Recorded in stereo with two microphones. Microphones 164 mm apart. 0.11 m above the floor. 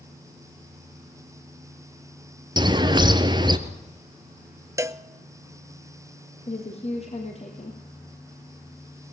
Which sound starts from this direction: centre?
A cowbell, at 4.8 s.